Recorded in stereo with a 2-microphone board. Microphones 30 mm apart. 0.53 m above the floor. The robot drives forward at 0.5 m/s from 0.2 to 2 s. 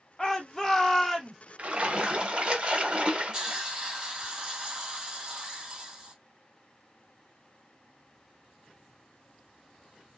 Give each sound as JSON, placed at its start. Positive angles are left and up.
{"t": 0.2, "sound": "a shout", "side_deg": 15, "distance_m": 0.6}
{"t": 1.6, "sound": "a splash", "side_deg": -45, "distance_m": 0.7}
{"t": 3.3, "sound": "a hiss", "side_deg": -20, "distance_m": 1.7}